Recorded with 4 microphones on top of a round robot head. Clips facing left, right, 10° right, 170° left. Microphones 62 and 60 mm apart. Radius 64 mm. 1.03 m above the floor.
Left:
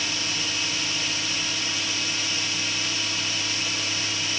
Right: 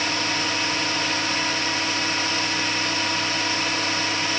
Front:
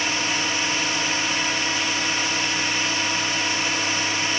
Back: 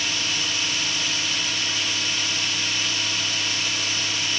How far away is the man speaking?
I don't hear a man speaking.